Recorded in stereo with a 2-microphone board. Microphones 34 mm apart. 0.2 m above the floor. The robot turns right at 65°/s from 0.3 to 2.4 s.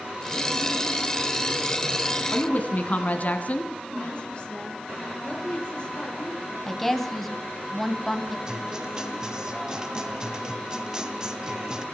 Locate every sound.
2.3 s a woman speaking: 40° left (ahead or behind), 1.5 m; by 3.7 s 45° left (ahead or behind), 1.5 m
3.9 s a woman speaking: 30° left (ahead or behind), 4 m
6.7 s a woman speaking: 5° left (ahead or behind), 1.4 m
8.5 s a guitar: 20° right (ahead or behind), 0.9 m